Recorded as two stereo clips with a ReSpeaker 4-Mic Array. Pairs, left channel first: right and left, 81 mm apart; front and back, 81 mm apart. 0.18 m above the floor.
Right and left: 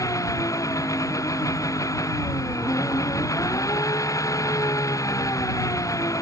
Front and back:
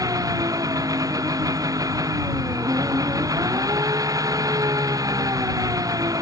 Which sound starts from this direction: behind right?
An engine running, at 0.0 s.